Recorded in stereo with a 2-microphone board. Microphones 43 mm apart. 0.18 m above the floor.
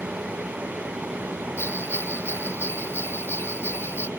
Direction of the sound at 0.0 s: 75° right (ahead or behind).